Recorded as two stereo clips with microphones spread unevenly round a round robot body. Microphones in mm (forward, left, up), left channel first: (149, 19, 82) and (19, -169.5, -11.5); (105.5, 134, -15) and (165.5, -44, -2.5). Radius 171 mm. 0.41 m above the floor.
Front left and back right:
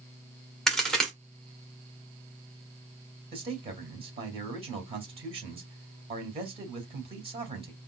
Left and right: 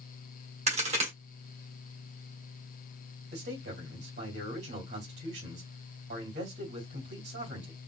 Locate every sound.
0.7 s a crack: 75° right, 1.6 m
3.3 s a man speaking: 85° right, 2.5 m